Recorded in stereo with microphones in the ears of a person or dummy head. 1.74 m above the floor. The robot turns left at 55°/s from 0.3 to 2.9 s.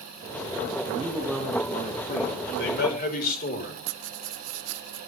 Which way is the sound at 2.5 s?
70° left (ahead or behind).